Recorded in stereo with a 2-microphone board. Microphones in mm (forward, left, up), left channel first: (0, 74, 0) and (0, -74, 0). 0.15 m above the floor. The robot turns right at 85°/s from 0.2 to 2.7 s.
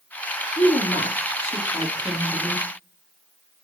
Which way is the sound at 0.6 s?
55° left.